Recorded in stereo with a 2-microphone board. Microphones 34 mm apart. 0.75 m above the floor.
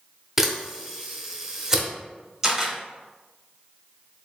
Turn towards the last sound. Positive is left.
turn(degrees=-15)  # may be behind; listen again after turning